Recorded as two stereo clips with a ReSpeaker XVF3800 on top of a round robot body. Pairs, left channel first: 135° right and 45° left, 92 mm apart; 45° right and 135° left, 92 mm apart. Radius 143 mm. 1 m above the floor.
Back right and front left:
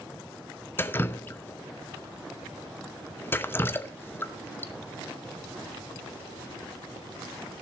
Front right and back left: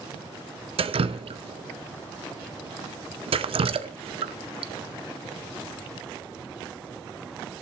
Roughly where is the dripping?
Behind left.